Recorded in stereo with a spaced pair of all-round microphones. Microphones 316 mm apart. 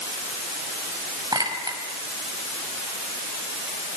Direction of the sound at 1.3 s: 15° right (ahead or behind).